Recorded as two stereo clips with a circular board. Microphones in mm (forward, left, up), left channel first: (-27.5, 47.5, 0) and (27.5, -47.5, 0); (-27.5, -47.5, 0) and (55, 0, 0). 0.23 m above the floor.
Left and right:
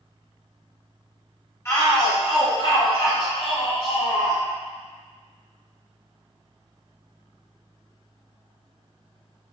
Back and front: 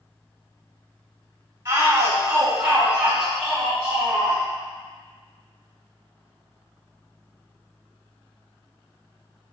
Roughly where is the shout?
Left.